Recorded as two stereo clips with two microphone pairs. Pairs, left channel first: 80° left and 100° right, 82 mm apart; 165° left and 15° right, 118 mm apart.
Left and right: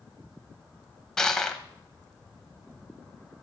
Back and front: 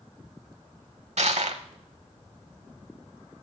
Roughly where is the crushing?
Ahead.